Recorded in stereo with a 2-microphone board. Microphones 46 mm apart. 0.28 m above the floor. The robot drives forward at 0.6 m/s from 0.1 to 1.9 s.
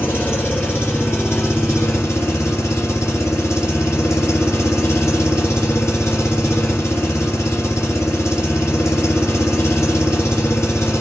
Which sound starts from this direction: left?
An engine running, at 0.0 s.